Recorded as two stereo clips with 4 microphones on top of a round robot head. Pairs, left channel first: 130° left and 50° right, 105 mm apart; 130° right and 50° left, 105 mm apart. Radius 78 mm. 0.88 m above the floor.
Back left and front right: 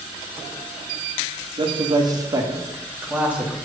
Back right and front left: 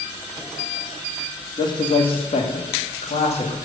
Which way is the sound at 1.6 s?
85° right.